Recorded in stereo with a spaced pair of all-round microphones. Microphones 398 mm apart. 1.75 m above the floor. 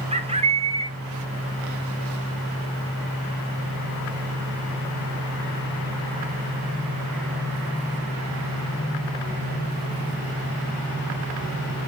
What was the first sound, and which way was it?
A bird, 15° right (ahead or behind).